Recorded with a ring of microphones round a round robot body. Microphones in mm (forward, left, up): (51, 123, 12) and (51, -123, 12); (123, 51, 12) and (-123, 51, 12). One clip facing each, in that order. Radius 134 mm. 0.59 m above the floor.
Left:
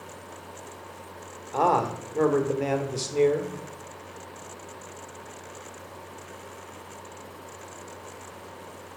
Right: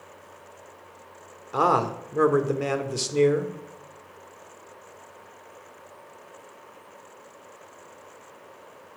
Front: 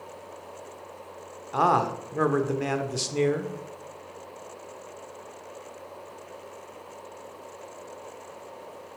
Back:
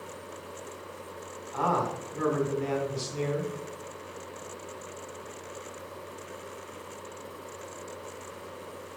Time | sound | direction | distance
1.5 | a man speaking | 15° right | 1.4 m